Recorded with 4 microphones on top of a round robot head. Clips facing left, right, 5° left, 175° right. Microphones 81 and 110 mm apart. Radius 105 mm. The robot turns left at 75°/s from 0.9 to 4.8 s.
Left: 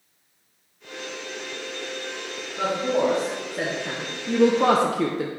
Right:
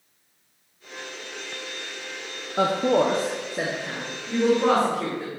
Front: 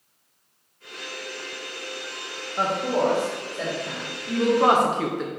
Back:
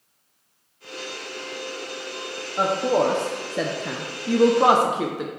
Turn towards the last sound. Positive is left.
turn(degrees=100)